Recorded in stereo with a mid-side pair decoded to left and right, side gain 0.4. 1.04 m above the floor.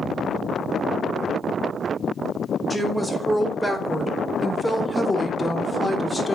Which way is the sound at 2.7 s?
5° right.